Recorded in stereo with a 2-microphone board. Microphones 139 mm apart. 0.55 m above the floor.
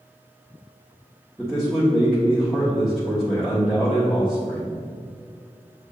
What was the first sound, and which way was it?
A man speaking, centre (ahead or behind).